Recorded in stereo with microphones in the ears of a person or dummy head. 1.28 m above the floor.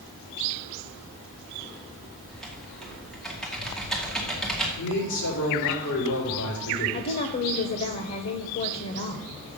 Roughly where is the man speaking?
Left.